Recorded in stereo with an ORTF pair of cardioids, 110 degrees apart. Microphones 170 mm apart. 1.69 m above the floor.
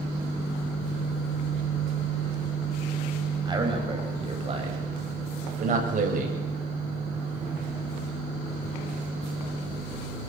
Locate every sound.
3.5 s a man speaking: 25° right, 9 m; by 6.3 s 55° right, 8.5 m